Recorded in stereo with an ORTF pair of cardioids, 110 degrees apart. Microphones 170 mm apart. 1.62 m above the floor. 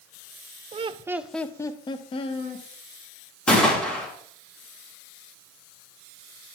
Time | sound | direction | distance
0.7 | laughter | 40° right | 0.5 m
3.5 | a gunshot | 5° left | 2.5 m